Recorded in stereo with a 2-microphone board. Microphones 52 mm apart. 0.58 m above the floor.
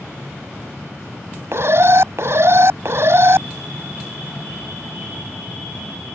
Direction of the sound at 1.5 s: 60° right (ahead or behind).